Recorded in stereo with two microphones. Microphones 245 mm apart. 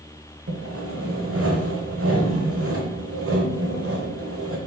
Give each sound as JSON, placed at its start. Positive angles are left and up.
{"t": 0.5, "sound": "sawing", "side_deg": -60, "distance_m": 0.9}